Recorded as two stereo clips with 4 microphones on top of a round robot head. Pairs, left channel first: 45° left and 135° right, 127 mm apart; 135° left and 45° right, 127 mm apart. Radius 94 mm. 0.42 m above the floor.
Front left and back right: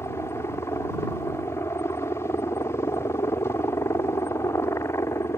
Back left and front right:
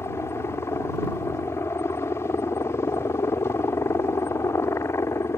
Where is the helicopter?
90° left.